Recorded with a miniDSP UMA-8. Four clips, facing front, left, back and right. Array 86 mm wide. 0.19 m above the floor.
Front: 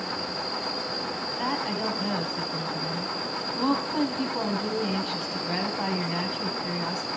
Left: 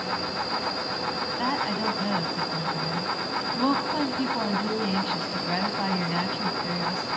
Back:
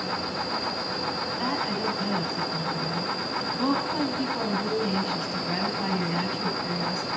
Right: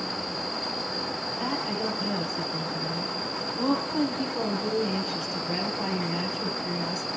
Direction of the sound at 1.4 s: 80° left.